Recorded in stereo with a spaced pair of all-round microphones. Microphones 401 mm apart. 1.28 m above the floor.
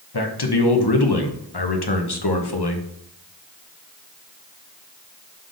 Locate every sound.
0.1 s a man speaking: 70° left (ahead or behind), 1.0 m